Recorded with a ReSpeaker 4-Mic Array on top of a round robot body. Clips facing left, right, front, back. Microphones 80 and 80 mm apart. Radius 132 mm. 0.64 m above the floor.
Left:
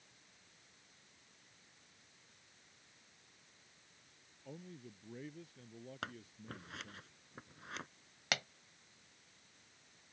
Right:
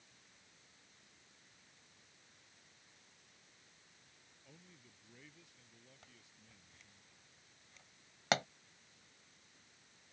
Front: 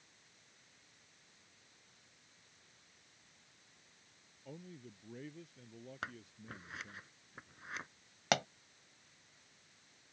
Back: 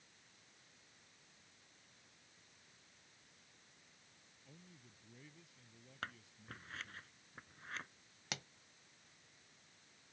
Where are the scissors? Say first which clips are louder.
Left 18 dB, front 1 dB; 75° left.